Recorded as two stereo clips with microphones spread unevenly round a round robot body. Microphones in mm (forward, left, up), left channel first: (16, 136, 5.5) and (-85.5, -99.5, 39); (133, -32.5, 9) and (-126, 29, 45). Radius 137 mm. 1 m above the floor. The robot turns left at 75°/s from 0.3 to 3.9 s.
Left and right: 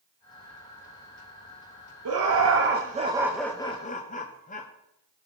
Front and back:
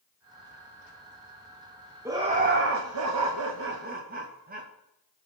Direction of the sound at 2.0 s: 110° right.